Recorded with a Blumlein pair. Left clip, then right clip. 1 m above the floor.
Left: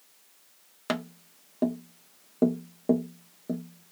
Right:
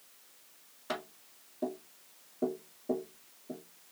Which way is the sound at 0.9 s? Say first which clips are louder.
Left 6 dB; 40° left.